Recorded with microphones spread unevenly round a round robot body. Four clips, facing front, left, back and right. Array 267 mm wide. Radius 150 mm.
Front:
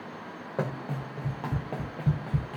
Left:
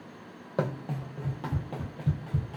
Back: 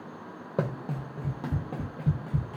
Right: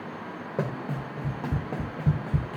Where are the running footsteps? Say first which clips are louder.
Even, back 1 dB; 165° right, 0.9 m; by 2.6 s 40° right, 1.0 m.